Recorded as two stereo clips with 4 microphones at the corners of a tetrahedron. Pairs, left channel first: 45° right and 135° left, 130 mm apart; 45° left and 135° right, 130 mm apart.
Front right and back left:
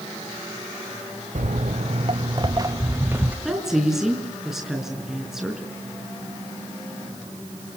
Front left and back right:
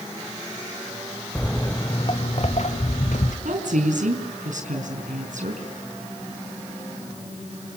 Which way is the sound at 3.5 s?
140° right.